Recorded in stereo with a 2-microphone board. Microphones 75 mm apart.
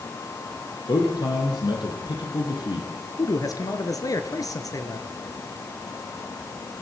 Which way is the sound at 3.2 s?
55° left (ahead or behind).